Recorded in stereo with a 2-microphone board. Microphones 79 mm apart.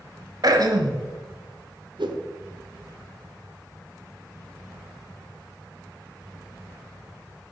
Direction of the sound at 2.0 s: 75° right (ahead or behind).